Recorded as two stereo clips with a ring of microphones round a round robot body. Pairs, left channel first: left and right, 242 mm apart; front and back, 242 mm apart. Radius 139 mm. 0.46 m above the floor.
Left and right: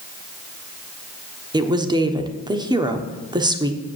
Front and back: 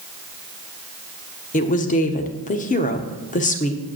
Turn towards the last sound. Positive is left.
turn(degrees=-30)